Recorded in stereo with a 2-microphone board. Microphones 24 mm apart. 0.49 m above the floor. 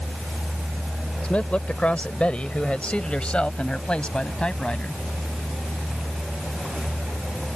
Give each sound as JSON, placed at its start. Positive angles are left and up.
{"t": 1.2, "sound": "a man speaking", "side_deg": 60}